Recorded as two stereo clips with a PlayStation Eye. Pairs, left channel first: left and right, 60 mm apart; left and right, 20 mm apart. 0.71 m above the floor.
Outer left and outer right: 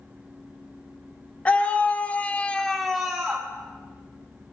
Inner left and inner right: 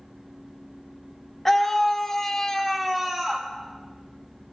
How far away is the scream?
About 1.5 m.